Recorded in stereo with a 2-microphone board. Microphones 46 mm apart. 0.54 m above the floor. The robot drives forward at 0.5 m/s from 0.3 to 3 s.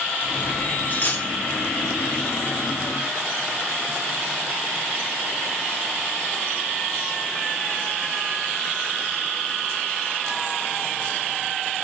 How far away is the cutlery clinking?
About 0.6 m.